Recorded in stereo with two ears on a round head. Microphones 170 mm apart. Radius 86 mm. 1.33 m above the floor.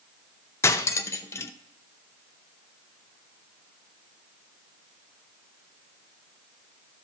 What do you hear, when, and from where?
0.6 s cutlery clinking: 15° left (ahead or behind), 0.5 m